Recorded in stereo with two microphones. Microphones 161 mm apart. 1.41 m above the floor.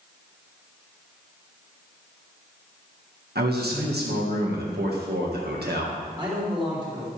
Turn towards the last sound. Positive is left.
turn(degrees=-30)  # may be behind; listen again after turning